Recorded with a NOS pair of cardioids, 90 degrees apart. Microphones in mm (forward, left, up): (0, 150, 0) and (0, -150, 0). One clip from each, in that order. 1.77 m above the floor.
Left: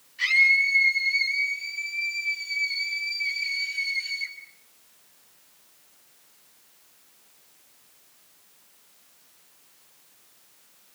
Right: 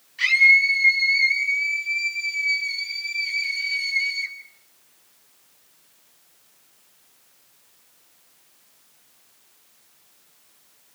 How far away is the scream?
About 4 m.